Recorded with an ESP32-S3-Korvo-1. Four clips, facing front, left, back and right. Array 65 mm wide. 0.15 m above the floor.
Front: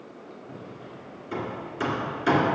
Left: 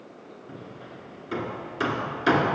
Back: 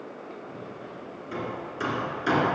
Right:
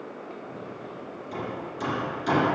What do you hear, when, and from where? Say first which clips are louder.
0.5 s hammering: right 4 dB, back 2 dB; 85° left, 1.8 m